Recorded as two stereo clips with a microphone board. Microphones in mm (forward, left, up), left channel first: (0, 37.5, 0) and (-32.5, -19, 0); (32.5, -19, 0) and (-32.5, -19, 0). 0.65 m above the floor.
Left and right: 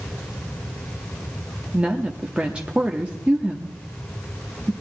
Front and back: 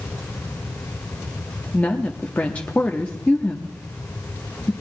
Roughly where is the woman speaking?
Ahead right.